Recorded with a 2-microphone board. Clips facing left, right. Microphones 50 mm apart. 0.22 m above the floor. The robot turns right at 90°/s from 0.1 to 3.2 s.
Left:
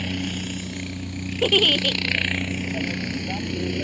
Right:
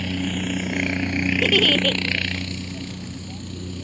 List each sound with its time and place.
0.0 s a helicopter: straight behind; by 3.9 s 100° left
1.4 s a giggle: 155° left; by 2.0 s 150° right